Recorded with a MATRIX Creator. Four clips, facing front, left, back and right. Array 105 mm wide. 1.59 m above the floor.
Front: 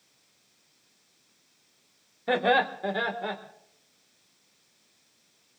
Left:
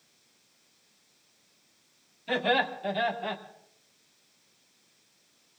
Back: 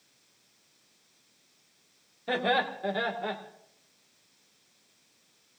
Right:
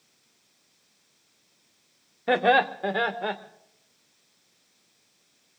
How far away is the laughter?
About 1.6 m.